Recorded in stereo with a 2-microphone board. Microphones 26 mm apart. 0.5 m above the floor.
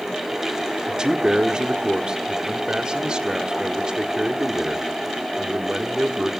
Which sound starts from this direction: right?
A man speaking, at 0.9 s.